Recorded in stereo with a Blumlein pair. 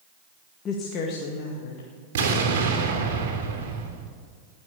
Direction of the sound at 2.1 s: 55° right.